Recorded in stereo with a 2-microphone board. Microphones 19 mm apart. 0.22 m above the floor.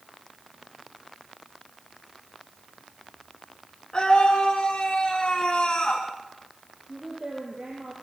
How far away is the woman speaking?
About 6.5 m.